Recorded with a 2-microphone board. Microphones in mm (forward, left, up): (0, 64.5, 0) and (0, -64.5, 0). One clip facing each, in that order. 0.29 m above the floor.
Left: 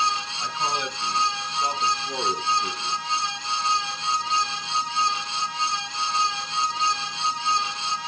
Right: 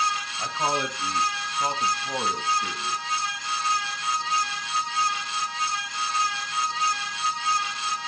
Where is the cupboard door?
No cupboard door in this recording.